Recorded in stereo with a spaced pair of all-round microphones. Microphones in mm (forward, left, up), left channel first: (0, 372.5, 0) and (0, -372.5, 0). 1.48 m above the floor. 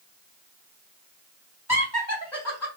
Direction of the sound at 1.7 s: 20° left (ahead or behind).